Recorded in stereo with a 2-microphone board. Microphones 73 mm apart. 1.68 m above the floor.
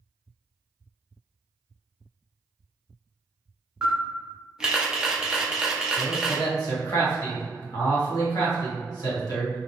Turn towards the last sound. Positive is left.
turn(degrees=60)  # may be behind; listen again after turning